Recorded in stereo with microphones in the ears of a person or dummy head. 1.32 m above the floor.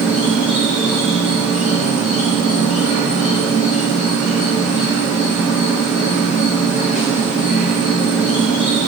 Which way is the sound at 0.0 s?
Centre (ahead or behind).